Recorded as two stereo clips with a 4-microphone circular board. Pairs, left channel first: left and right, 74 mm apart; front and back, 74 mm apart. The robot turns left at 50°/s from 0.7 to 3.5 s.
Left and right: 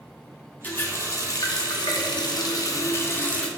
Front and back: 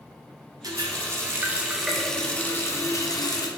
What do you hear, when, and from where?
0.6 s a running tap: 155° left, 0.5 m; by 3.5 s 15° left, 0.5 m